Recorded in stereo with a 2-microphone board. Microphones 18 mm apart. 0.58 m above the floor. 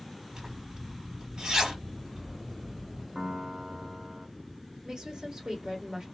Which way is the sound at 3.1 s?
40° right (ahead or behind).